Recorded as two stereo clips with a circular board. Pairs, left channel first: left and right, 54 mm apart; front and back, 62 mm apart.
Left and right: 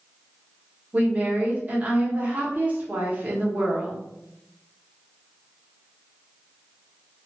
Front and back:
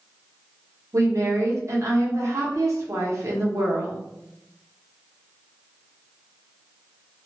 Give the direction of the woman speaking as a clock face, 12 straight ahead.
5 o'clock.